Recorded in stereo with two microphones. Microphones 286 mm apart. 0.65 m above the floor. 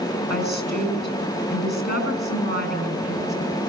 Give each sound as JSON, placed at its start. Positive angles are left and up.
{"t": 0.3, "sound": "a woman speaking", "side_deg": 35, "distance_m": 5.5}